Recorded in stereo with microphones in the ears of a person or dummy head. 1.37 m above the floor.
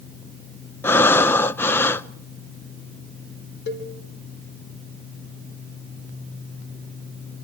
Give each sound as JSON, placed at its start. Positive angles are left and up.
{"t": 0.8, "sound": "breathing", "side_deg": 10, "distance_m": 0.5}
{"t": 3.7, "sound": "a cowbell", "side_deg": 60, "distance_m": 4.0}